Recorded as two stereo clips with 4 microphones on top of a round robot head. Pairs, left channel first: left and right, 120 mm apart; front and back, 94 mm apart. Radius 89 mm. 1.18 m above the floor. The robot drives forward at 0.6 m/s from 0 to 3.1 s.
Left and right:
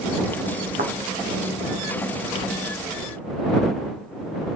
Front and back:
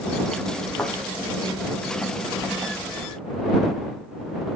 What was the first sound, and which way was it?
A thud, 85° right.